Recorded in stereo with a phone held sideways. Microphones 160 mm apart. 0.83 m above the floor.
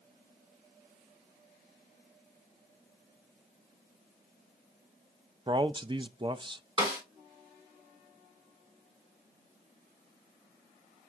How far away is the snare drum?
About 3.5 m.